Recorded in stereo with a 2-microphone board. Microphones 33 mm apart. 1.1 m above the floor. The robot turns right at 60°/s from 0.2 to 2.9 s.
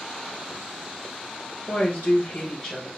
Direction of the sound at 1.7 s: 90° left.